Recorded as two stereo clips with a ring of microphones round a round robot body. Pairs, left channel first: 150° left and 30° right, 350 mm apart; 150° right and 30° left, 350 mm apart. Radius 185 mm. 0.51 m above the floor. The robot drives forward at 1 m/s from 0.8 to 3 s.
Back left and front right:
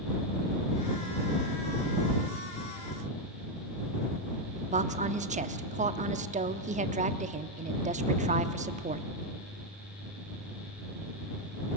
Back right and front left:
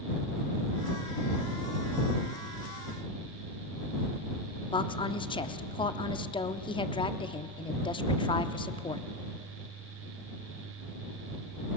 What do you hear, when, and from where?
4.7 s a woman speaking: 85° right, 0.7 m